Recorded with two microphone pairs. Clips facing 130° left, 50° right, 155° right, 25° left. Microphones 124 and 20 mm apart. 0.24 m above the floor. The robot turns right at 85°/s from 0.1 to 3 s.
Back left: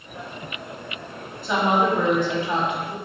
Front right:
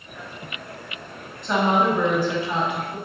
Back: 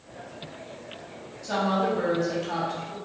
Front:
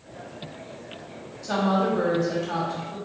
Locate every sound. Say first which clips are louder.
1.4 s a woman speaking: even, front 2 dB; 55° left, 1.0 m; by 3.0 s 175° right, 1.0 m